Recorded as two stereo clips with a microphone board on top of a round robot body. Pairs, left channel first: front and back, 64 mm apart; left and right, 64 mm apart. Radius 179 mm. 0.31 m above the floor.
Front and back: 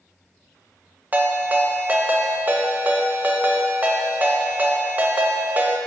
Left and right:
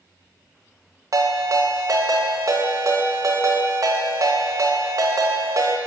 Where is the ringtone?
115° right, 1.1 m.